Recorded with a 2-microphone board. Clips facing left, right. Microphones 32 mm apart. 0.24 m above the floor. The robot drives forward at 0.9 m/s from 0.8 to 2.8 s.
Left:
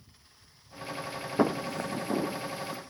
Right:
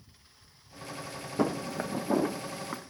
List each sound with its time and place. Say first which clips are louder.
1.4 s footsteps: left 2 dB; 30° left (ahead or behind), 0.5 m; by 2.8 s 40° right (ahead or behind), 1.3 m